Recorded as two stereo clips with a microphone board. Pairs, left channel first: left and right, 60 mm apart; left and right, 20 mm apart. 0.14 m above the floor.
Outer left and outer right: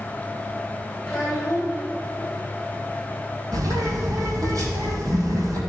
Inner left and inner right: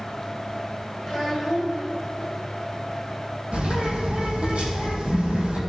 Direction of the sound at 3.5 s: 75° right (ahead or behind).